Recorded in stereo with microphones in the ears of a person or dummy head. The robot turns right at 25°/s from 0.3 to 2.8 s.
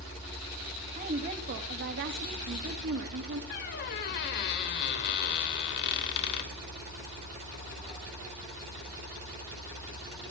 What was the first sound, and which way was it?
A woman speaking, 140° right.